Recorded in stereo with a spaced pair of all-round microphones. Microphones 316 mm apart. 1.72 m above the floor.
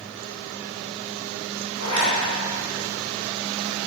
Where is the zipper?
60° left (ahead or behind), 3.5 m.